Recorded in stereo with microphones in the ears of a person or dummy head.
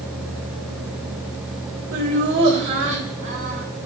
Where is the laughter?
60° right (ahead or behind), 1.2 m.